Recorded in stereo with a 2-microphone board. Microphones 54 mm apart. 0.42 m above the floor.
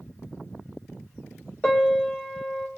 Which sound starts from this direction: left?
A piano, at 1.6 s.